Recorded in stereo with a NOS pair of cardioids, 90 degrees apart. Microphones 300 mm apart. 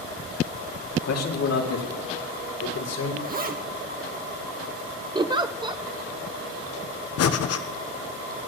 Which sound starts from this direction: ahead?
A giggle, at 5.2 s.